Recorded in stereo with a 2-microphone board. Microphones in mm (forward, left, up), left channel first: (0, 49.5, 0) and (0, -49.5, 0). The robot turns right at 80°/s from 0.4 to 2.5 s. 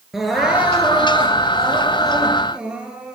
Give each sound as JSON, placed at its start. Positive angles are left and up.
{"t": 0.1, "sound": "crying", "azimuth_deg": -175, "distance_m": 3.5}